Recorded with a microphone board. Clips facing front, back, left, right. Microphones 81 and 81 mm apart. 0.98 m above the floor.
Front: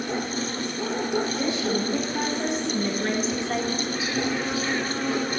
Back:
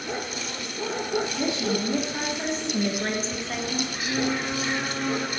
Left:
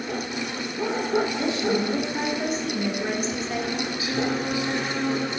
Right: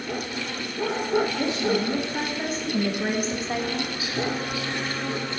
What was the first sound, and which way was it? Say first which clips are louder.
A woman speaking: front 1 dB, even; 150° right.